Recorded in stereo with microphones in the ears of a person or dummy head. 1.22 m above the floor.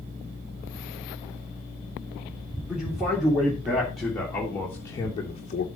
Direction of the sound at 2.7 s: 5° right (ahead or behind).